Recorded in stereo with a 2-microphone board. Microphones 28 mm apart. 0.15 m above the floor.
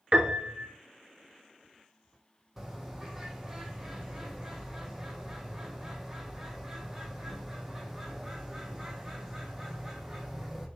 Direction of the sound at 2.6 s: 10° right (ahead or behind).